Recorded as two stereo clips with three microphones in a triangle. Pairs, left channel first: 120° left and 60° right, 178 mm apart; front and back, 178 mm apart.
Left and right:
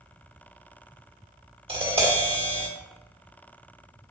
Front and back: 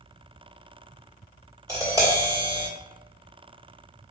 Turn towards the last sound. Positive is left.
turn(degrees=-110)